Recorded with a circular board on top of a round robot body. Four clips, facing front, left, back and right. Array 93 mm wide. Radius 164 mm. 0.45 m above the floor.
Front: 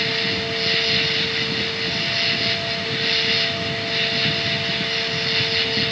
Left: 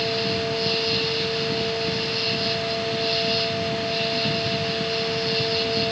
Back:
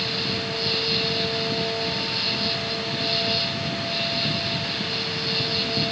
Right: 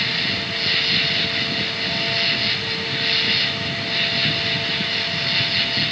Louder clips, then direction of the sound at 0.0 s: Left 4 dB, front 3 dB; 45° right.